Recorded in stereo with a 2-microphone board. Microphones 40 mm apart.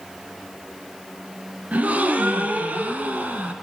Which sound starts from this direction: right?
A gasp, at 1.7 s.